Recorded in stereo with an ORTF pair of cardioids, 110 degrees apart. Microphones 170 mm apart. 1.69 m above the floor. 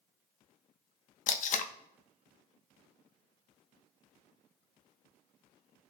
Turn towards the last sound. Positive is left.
turn(degrees=50)